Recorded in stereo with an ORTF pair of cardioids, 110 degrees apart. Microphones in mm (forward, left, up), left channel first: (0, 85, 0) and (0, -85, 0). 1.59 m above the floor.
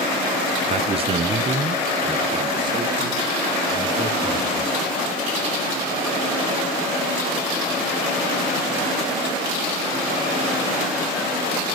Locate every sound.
0.7 s a man speaking: 40° right, 0.7 m; by 4.7 s 25° right, 4 m